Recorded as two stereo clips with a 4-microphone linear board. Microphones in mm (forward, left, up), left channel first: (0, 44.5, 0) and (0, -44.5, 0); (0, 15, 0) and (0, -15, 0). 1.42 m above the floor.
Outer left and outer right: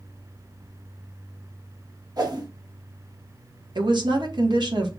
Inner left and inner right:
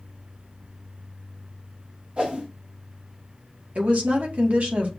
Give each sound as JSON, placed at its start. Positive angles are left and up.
{"t": 2.2, "sound": "a whoosh", "side_deg": -45, "distance_m": 1.2}
{"t": 3.8, "sound": "a woman speaking", "side_deg": -55, "distance_m": 1.4}